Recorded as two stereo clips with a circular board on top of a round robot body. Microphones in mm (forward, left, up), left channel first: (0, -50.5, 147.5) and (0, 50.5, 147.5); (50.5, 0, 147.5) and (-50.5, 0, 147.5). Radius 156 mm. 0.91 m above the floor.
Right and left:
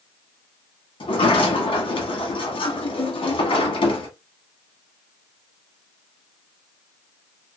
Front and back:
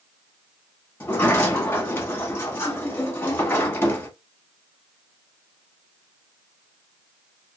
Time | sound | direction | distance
1.0 | a sliding door | 70° right | 1.1 m